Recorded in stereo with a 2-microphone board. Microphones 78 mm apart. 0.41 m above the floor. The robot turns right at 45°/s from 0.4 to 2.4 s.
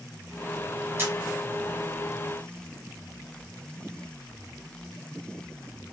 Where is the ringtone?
No ringtone in this recording.